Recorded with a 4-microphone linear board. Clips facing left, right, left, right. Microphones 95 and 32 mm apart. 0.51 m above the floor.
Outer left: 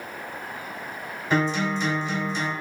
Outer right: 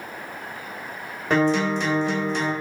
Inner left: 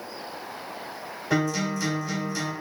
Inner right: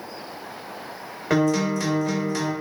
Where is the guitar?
55° right (ahead or behind), 1.6 m.